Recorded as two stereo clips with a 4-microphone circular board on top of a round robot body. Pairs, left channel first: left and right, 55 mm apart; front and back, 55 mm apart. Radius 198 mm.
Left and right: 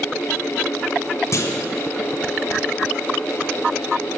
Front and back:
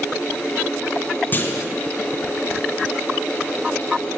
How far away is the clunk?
About 0.8 m.